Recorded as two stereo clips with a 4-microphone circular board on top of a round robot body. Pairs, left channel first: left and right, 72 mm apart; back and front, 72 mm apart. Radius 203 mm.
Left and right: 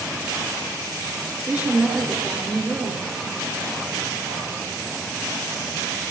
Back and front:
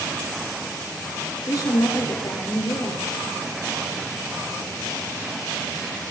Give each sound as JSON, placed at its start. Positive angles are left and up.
{"t": 1.5, "sound": "a woman speaking", "azimuth_deg": -160, "distance_m": 3.0}